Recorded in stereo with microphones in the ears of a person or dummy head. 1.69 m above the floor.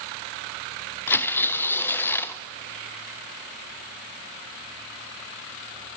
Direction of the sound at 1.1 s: 10° left (ahead or behind).